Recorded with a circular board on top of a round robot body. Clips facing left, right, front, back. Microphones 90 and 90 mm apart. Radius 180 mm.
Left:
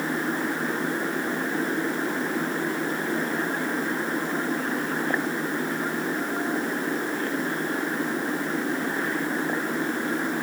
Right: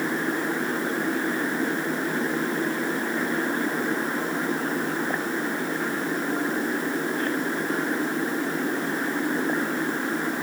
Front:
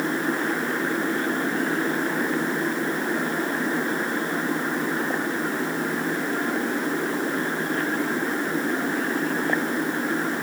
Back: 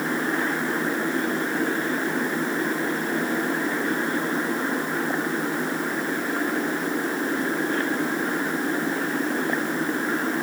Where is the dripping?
No dripping in this recording.